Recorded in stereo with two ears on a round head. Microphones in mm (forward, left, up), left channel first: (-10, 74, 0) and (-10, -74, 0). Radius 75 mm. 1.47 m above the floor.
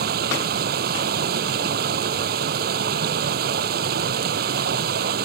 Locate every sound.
0.0 s running water: 65° right (ahead or behind)